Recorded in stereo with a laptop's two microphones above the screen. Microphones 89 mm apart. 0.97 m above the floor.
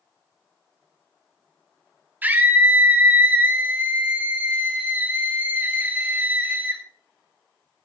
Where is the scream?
20° right (ahead or behind), 2 m.